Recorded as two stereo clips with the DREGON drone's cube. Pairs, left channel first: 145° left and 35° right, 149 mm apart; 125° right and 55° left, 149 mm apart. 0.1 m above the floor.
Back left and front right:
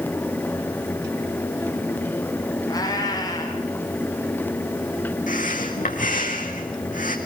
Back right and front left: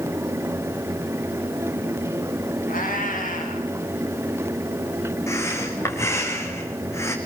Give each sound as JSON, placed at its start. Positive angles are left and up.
{"t": 2.7, "sound": "a cat meowing", "azimuth_deg": -150, "distance_m": 5.5}
{"t": 5.3, "sound": "breathing", "azimuth_deg": 165, "distance_m": 2.5}